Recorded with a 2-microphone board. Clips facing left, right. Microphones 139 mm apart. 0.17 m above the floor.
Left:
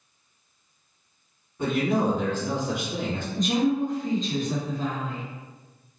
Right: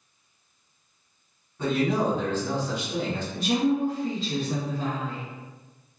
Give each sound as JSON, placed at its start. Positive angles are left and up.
{"t": 1.6, "sound": "a man speaking", "side_deg": 10, "distance_m": 1.4}
{"t": 3.3, "sound": "a woman speaking", "side_deg": -5, "distance_m": 1.7}